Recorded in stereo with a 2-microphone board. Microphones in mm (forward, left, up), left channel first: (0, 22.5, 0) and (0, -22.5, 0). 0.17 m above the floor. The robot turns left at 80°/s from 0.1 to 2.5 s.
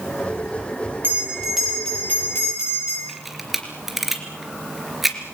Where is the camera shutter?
5° right (ahead or behind), 3 m.